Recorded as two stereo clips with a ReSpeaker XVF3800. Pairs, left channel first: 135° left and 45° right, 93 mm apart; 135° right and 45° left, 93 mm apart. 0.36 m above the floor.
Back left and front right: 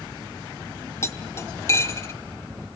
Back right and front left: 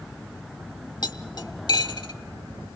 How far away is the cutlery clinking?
About 1.0 m.